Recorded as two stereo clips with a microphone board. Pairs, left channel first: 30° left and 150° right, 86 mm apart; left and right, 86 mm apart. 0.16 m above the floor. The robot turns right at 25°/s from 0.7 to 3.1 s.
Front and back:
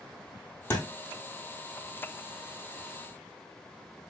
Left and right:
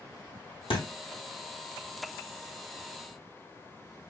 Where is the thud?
95° left, 1.8 m; by 0.8 s 100° left, 1.8 m.